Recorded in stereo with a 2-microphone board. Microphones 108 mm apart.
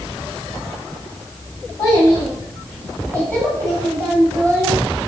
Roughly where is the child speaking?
Left.